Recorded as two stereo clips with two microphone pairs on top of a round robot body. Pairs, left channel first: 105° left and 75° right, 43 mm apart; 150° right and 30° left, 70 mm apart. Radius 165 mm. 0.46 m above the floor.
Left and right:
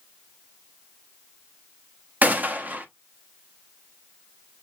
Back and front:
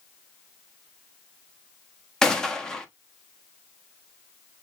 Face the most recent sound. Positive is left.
turn(degrees=-60)